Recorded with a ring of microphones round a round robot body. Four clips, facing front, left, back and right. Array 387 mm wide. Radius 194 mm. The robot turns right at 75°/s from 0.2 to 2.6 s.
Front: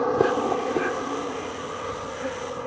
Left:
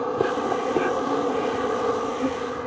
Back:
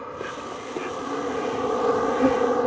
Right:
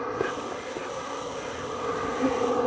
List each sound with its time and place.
0.0 s an insect: 25° left; by 2.7 s 155° right